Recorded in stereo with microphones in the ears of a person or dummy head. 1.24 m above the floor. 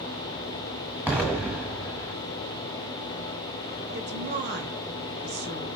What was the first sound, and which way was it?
An explosion, 5° right (ahead or behind).